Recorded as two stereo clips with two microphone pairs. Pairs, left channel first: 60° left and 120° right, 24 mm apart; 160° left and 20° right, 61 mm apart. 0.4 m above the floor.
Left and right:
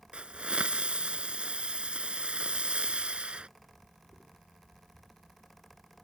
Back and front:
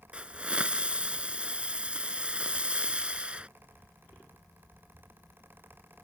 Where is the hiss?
90° right.